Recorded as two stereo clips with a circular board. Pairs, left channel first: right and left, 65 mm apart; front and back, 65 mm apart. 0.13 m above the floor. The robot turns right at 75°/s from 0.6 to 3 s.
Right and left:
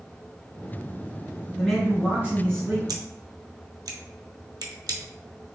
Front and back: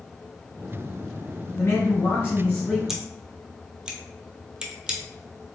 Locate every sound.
1.5 s a man speaking: 20° right, 1.6 m; by 2.8 s 75° left, 1.6 m
2.9 s scissors: 95° left, 0.7 m; by 5.0 s 105° left, 0.7 m